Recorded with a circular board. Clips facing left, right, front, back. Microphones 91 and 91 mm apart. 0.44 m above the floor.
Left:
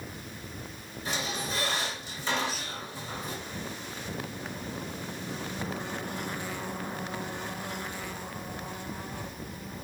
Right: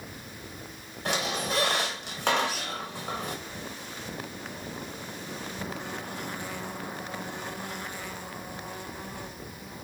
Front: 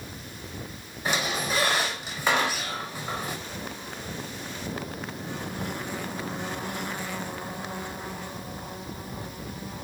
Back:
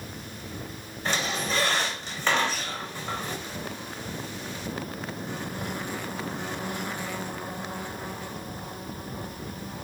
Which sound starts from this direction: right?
A squeak, at 1.1 s.